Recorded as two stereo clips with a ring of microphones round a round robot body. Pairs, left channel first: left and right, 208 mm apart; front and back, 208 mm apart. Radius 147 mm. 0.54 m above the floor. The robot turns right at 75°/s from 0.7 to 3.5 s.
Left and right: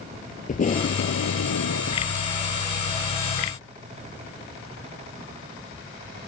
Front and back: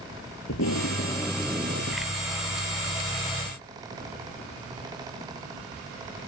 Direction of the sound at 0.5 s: 40° left.